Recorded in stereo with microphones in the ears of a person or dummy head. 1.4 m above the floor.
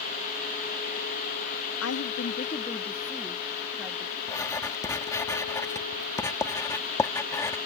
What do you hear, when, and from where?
1.8 s a woman speaking: 75° left (ahead or behind); by 4.2 s 10° right (ahead or behind)
4.3 s writing: 15° left (ahead or behind)